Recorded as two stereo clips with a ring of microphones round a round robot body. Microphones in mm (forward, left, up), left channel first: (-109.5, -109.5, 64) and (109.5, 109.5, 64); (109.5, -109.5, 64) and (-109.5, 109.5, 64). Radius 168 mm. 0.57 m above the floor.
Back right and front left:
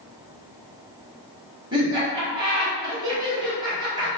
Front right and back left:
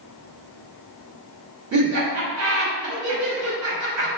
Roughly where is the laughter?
Behind left.